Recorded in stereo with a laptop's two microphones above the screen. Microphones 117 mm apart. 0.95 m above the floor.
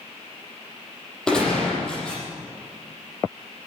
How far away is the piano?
No piano in this recording.